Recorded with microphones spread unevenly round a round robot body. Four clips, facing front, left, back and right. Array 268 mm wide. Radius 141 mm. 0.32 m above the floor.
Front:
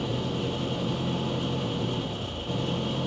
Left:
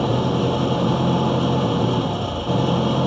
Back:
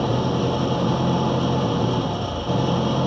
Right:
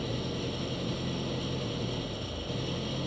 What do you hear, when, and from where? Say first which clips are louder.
0.0 s an engine running: left 15 dB, back 8 dB; 115° left